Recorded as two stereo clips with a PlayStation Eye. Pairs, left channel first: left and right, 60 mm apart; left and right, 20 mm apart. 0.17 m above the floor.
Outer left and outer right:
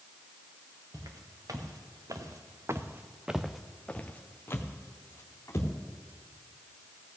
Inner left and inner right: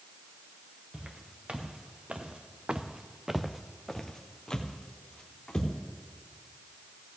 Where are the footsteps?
85° right, 2.5 m; by 5.7 s 50° left (ahead or behind), 3 m.